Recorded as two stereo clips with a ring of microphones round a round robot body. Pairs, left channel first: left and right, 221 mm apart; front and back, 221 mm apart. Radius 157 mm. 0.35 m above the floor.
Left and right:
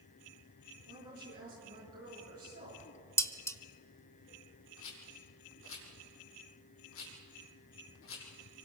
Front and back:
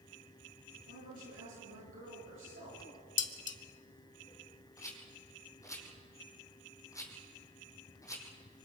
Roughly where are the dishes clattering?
Ahead.